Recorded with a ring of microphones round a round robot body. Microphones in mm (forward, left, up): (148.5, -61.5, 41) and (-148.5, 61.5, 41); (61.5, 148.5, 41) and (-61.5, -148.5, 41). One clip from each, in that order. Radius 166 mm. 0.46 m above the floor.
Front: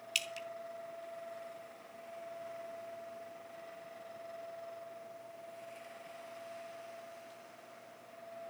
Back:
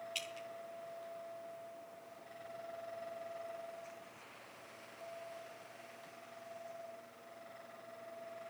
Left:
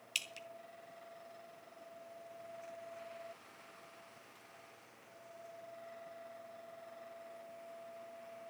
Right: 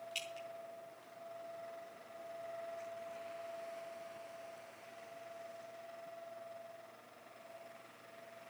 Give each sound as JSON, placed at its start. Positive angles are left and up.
{"t": 0.1, "sound": "dripping", "azimuth_deg": 20, "distance_m": 2.5}